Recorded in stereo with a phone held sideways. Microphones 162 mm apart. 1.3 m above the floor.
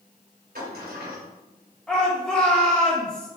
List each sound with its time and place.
0.6 s a sliding door: 70° right (ahead or behind), 3 m
1.9 s a shout: 5° left (ahead or behind), 3 m